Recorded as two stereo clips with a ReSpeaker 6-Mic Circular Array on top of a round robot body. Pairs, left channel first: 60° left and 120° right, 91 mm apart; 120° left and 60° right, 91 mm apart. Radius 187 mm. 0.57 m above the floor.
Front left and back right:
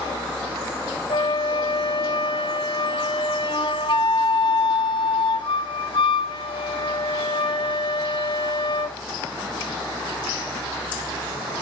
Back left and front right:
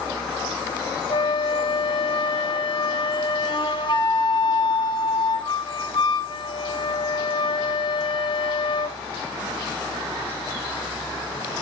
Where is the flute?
90° left, 0.8 m.